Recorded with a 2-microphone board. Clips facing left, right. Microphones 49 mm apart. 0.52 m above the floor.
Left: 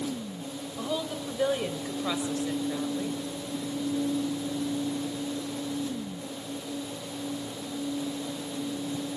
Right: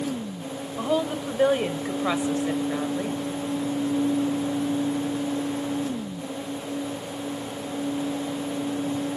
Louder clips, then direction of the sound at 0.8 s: Right 8 dB; 30° right (ahead or behind).